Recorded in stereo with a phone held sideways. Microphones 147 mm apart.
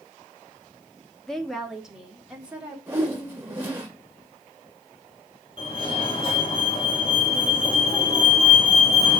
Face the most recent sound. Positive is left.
turn(degrees=35)  # may be behind; listen again after turning